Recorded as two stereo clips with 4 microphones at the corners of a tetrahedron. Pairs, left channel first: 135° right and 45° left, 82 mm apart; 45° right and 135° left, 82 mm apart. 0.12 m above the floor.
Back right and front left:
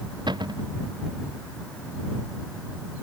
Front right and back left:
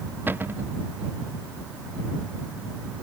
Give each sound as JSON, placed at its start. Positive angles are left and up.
{"t": 0.3, "sound": "a cupboard door", "azimuth_deg": 70}